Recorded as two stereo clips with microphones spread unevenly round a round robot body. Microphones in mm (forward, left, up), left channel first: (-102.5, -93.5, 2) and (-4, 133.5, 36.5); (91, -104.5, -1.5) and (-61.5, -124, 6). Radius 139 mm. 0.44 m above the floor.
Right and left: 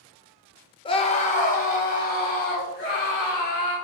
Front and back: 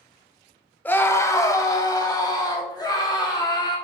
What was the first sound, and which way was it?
A scream, 65° right.